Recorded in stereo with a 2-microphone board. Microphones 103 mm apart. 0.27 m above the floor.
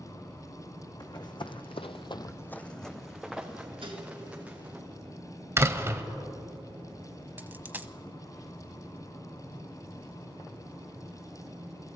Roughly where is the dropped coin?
Centre.